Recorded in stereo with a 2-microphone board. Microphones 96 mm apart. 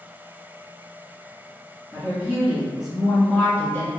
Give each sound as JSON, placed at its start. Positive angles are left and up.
{"t": 1.9, "sound": "a woman speaking", "side_deg": -25, "distance_m": 1.8}